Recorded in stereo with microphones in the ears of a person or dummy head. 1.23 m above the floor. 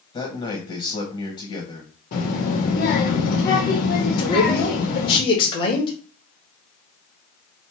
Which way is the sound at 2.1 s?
50° left (ahead or behind).